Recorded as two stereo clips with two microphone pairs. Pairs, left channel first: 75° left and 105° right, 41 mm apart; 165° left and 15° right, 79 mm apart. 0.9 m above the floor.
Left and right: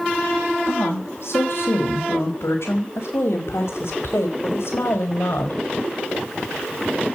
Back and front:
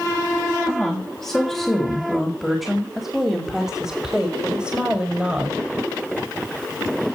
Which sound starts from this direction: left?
A woman speaking, at 0.7 s.